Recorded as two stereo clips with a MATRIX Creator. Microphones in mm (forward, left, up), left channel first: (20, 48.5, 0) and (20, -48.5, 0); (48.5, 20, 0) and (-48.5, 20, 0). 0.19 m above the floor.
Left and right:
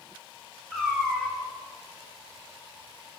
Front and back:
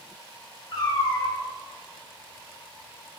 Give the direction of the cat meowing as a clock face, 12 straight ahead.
12 o'clock.